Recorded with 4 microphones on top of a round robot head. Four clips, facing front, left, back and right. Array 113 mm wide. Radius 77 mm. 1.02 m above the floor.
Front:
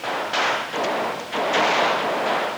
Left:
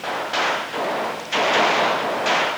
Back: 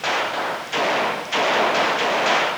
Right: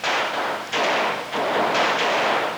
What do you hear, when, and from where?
Only background noise.